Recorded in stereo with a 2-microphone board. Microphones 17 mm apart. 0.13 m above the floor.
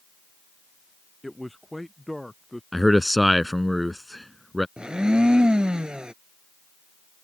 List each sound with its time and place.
1.2 s a man speaking: 5° left (ahead or behind)
2.7 s a man speaking: 5° left (ahead or behind)
4.8 s a blender: 50° right (ahead or behind)